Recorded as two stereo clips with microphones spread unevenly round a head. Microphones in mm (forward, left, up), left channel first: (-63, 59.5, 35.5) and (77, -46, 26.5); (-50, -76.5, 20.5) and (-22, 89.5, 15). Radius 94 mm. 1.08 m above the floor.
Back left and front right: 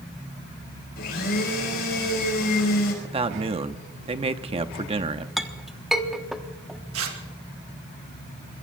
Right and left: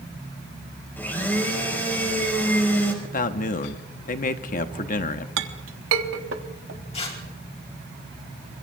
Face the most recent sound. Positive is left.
turn(degrees=-40)